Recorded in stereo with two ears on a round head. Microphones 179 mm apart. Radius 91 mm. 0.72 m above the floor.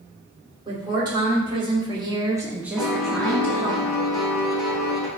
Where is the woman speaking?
25° right (ahead or behind), 2 m; by 3.8 s 10° left (ahead or behind), 1.5 m.